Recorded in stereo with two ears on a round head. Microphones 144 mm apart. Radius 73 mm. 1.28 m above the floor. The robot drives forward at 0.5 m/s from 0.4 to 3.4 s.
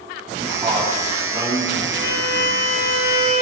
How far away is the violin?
About 3 m.